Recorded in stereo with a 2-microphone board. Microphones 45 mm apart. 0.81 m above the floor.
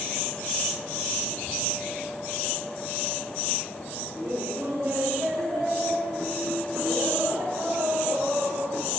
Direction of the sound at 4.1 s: 60° right (ahead or behind).